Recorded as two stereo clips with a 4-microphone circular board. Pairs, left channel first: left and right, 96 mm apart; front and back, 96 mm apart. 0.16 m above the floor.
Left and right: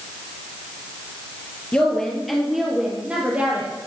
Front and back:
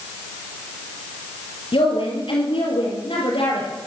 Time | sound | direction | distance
1.7 | a woman speaking | 10° left | 3.5 m